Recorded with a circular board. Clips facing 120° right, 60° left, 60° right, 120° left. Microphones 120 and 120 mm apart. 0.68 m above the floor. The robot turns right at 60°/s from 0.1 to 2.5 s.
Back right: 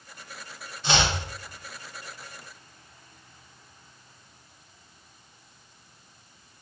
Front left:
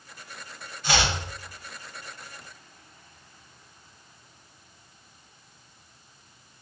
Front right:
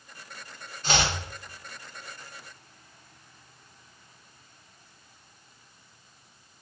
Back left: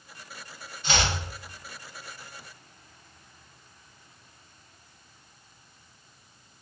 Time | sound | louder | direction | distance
0.8 | chopping | back right 1 dB, front right 1 dB | 75° right | 0.9 m